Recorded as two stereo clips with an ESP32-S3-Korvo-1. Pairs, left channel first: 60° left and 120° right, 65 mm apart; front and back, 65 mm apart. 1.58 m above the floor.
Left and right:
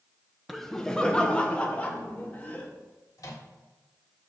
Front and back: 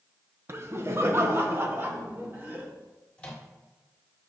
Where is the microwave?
70° left, 1.6 m.